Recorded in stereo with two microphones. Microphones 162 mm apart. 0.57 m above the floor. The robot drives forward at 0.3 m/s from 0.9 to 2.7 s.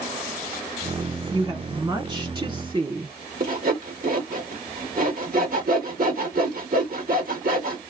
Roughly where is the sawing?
Right.